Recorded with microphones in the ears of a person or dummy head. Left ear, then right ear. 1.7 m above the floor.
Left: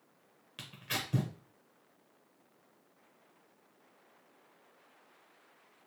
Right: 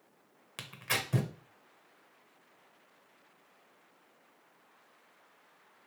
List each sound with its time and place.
0.6 s tearing paper: 40° right (ahead or behind), 0.6 m